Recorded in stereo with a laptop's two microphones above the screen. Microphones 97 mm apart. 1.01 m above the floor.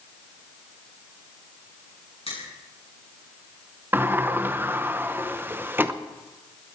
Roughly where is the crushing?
Left.